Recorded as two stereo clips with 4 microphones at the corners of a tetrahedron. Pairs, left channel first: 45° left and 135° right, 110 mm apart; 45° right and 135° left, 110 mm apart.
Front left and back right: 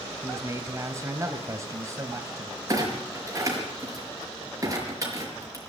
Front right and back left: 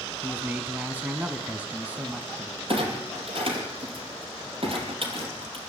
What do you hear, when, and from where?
0.2 s a man speaking: 165° right, 1.8 m
2.7 s a clunk: 165° left, 5 m